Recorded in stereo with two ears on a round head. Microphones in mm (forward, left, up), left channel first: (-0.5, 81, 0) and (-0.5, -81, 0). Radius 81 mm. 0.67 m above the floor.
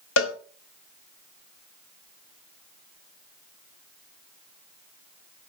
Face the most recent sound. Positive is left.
turn(degrees=80)